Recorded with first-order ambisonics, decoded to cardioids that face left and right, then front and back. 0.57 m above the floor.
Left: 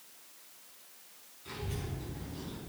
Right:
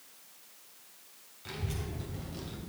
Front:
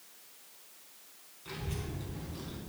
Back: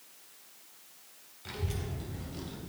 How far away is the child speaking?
About 3 m.